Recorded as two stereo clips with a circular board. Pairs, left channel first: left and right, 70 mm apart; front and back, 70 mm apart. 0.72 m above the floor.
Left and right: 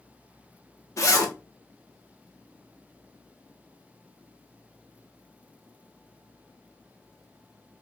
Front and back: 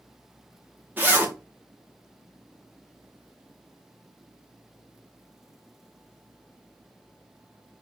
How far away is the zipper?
About 0.8 m.